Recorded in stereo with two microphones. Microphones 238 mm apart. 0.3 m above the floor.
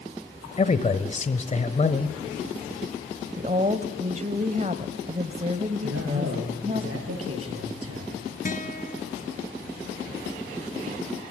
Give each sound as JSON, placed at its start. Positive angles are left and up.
{"t": 0.6, "sound": "a man speaking", "side_deg": 30, "distance_m": 1.0}
{"t": 3.4, "sound": "a woman speaking", "side_deg": -30, "distance_m": 1.2}
{"t": 5.8, "sound": "a man speaking", "side_deg": -80, "distance_m": 7.0}
{"t": 8.4, "sound": "a guitar", "side_deg": 35, "distance_m": 3.0}